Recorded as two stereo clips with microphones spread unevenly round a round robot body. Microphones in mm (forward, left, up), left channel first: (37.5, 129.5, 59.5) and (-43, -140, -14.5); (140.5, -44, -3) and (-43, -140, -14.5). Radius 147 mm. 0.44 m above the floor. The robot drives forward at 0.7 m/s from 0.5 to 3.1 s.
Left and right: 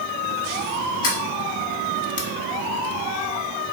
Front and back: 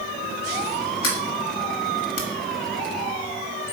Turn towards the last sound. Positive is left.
turn(degrees=45)